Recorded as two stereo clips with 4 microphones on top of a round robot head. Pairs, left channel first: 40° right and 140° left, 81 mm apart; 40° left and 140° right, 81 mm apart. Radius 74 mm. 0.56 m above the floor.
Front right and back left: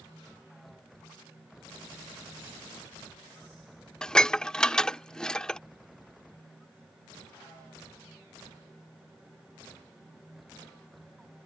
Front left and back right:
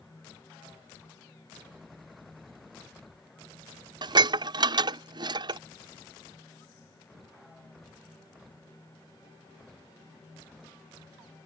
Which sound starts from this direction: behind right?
Dishes clattering, at 4.0 s.